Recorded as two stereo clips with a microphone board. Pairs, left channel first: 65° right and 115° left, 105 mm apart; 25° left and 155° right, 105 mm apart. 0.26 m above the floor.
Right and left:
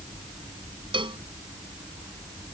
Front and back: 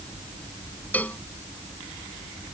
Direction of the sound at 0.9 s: 95° left.